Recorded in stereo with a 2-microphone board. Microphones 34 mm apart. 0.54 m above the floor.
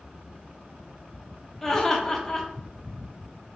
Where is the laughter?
10° left (ahead or behind), 0.8 m.